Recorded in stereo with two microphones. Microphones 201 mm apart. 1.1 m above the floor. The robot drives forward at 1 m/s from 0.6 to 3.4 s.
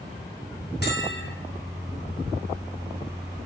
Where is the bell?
60° left (ahead or behind), 4 m; by 1.3 s 65° left (ahead or behind), 4 m.